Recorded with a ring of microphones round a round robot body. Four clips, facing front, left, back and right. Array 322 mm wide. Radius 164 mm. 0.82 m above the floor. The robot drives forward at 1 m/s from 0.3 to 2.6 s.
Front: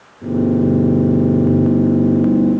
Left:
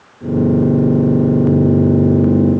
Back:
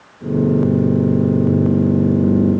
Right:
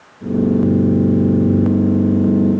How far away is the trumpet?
I don't hear a trumpet.